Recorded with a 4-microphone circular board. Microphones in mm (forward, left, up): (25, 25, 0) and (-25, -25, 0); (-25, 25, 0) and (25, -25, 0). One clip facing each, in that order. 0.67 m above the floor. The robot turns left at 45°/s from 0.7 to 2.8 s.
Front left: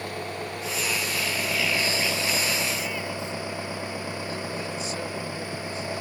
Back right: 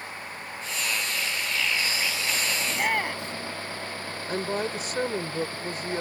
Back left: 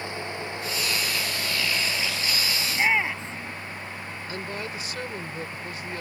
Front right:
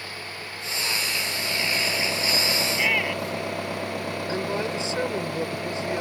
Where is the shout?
155° right; by 3.5 s 160° right.